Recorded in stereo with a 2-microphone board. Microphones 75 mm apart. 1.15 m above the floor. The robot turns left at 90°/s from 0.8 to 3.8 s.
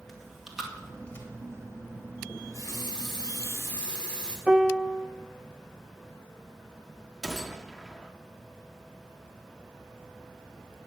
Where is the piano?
10° right (ahead or behind), 0.5 m.